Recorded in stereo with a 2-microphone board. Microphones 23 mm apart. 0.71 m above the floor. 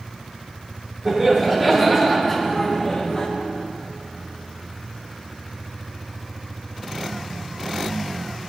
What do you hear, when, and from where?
1.1 s laughter: 5° left (ahead or behind), 2 m; by 3.3 s 30° left (ahead or behind), 1.0 m